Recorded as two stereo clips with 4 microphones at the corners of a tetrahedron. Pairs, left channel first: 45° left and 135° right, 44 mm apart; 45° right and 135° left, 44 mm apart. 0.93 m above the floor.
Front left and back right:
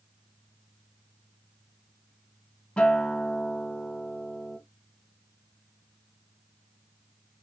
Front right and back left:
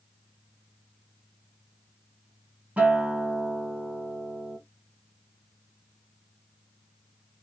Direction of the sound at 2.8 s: 95° left.